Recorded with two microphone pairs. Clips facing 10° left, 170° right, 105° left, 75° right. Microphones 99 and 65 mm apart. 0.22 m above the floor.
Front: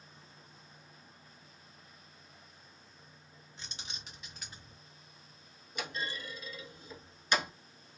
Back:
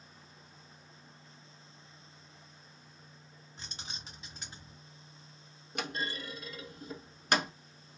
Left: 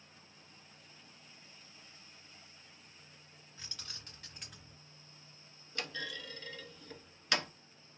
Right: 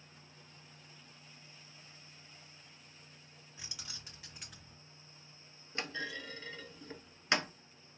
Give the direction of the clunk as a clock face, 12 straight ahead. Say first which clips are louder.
Back 2 dB, right 2 dB; 5 o'clock.